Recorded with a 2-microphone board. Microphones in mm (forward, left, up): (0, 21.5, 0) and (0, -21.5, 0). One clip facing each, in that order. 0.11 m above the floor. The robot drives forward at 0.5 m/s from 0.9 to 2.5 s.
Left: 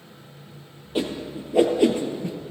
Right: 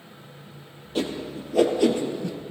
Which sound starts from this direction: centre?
A whoosh, at 0.9 s.